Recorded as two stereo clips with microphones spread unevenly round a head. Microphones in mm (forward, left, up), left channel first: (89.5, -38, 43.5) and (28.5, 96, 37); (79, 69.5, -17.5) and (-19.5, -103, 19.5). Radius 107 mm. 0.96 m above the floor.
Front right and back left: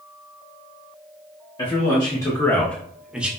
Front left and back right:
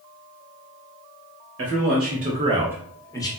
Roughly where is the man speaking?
Behind right.